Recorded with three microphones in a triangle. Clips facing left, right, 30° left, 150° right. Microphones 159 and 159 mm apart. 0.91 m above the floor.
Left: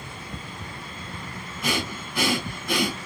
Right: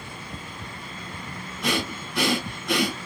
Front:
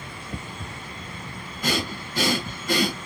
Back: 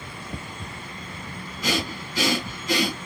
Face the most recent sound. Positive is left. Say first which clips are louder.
# right 1 dB, even
turn(degrees=10)